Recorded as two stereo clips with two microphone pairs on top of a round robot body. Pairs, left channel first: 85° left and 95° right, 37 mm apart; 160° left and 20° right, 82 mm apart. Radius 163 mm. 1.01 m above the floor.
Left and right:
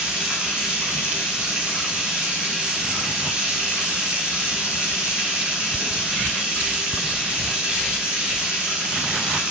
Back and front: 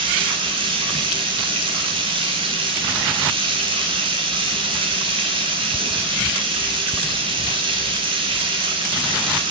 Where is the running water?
30° right, 1.4 m.